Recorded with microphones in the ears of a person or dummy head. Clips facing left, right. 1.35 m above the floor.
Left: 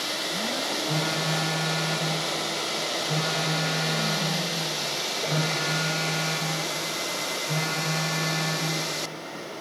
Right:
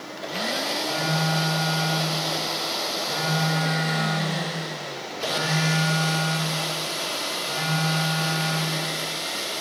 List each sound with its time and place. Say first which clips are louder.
0.8 s a phone buzzing: right 3 dB; 25° left (ahead or behind), 1.3 m